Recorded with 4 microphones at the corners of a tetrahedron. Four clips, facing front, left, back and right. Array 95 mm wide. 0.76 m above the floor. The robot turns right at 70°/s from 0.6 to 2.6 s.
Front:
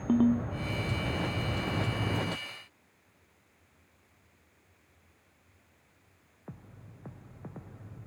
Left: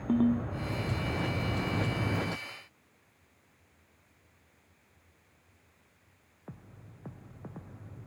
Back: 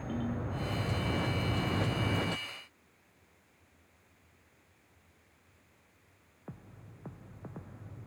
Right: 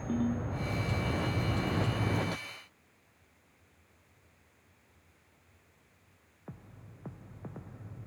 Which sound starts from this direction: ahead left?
A ringtone, at 0.1 s.